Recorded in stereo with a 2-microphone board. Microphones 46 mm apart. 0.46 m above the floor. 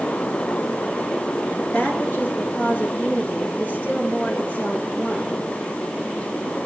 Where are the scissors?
No scissors in this recording.